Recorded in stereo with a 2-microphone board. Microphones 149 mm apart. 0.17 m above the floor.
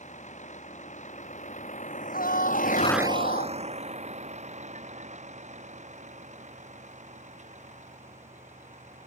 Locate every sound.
0.0 s a vehicle: 55° left (ahead or behind); by 9.1 s 50° right (ahead or behind)
2.1 s a scream: 75° left (ahead or behind)